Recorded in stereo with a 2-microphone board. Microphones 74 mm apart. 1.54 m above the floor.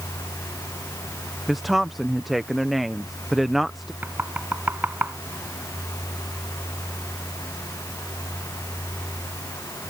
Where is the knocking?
25° right (ahead or behind).